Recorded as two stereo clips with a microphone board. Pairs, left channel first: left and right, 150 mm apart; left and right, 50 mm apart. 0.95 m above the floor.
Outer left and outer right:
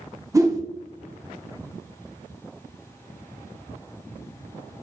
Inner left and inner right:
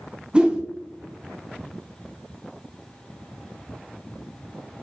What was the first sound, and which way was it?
A whoosh, 20° right (ahead or behind).